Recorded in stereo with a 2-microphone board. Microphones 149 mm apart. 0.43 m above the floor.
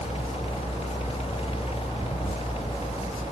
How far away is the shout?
No shout in this recording.